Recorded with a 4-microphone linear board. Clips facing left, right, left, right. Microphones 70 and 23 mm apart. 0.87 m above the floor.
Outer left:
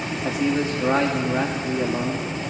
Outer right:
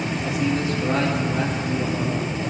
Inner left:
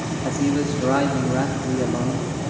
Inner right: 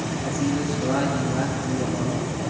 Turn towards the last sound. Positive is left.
turn(degrees=35)  # may be behind; listen again after turning